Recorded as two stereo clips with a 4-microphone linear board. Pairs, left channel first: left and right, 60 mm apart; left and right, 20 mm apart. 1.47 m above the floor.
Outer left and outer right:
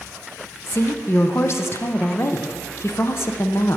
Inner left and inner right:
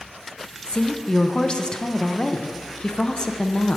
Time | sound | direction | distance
0.7 | a woman speaking | 50° left (ahead or behind) | 0.7 m